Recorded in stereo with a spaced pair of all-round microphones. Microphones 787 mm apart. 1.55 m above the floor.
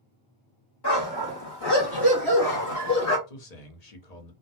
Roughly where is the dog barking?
Left.